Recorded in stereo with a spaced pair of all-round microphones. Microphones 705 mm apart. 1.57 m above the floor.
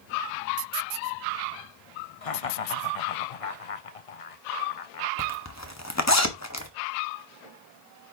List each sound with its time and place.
2.2 s laughter: 55° left (ahead or behind), 0.7 m
5.2 s a zipper: 20° left (ahead or behind), 1.4 m